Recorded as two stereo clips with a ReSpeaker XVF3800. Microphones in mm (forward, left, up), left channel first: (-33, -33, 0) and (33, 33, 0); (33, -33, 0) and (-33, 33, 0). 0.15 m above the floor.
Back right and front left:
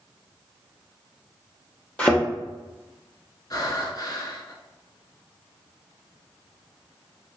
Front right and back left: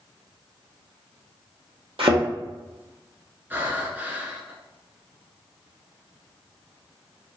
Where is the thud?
150° left, 1.3 m.